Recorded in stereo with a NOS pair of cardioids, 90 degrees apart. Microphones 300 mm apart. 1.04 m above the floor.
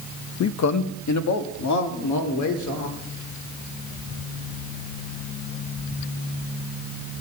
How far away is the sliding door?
No sliding door in this recording.